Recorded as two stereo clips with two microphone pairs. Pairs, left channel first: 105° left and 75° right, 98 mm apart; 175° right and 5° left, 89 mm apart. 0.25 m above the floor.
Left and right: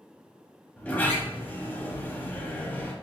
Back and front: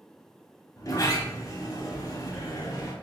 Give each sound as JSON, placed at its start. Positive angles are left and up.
{"t": 0.8, "sound": "a sliding door", "azimuth_deg": 170, "distance_m": 0.8}